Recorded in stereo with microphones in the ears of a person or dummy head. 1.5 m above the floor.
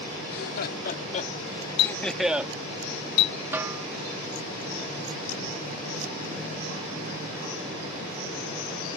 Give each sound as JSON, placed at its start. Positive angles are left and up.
{"t": 0.2, "sound": "laughter", "side_deg": 65}
{"t": 1.8, "sound": "a clink", "side_deg": 70}
{"t": 3.5, "sound": "a snare drum", "side_deg": -10}